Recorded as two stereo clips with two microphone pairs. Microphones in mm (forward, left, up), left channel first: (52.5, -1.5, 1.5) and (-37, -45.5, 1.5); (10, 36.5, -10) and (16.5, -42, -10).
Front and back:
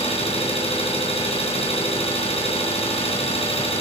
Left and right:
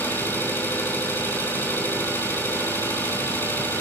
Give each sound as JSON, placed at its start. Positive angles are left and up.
{"t": 0.0, "sound": "an engine running", "azimuth_deg": 30, "distance_m": 4.0}